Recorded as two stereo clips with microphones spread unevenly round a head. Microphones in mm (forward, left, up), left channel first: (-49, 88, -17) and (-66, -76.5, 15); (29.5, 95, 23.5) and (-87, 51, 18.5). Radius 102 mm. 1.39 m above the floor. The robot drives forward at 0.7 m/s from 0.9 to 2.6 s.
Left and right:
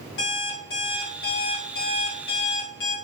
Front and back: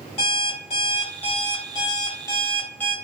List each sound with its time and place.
0.2 s an alarm clock: 55° left, 1.9 m; by 3.0 s 95° left, 1.6 m